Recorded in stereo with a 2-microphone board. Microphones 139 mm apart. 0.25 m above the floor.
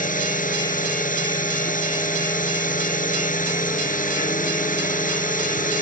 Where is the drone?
65° left (ahead or behind).